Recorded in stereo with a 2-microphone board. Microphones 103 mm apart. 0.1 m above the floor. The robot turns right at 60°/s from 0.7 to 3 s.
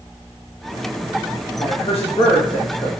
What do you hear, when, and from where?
1.6 s a man speaking: 80° left, 8 m; by 2.9 s 160° left, 8 m